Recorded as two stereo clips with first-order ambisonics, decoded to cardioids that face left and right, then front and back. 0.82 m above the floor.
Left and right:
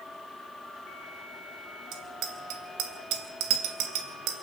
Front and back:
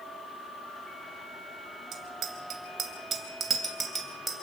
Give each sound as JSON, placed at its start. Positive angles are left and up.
{"t": 1.9, "sound": "a bicycle bell", "azimuth_deg": -130, "distance_m": 3.0}